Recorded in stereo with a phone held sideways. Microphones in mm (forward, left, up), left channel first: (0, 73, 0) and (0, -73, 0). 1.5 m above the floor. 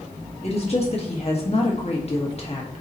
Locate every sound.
0.4 s a woman speaking: 45° left (ahead or behind), 1.9 m